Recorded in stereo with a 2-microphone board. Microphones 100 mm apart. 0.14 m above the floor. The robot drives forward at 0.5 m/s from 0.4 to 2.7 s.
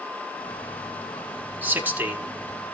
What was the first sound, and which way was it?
A man speaking, 20° right (ahead or behind).